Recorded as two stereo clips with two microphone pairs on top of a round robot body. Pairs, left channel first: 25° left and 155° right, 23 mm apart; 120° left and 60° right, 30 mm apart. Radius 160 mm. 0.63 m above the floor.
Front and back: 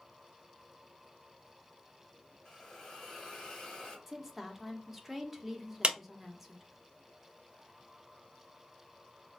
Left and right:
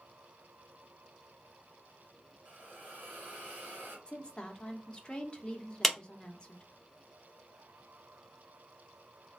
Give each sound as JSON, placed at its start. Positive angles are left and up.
{"t": 2.5, "sound": "a hiss", "azimuth_deg": -40, "distance_m": 1.3}
{"t": 4.1, "sound": "a woman speaking", "azimuth_deg": 125, "distance_m": 1.0}
{"t": 5.8, "sound": "a clap", "azimuth_deg": -160, "distance_m": 0.8}